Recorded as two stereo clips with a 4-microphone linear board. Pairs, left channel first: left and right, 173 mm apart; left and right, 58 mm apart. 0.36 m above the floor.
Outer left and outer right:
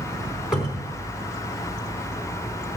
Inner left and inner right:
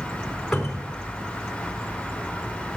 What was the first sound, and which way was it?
A cupboard door, 5° right (ahead or behind).